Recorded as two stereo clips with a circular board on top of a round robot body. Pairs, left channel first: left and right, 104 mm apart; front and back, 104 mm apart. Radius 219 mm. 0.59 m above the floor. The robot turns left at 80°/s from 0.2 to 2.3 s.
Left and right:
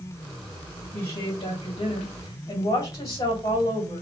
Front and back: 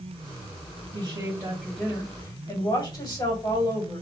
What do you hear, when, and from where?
0.9 s a woman speaking: 155° left, 2 m; by 4.0 s 45° left, 2 m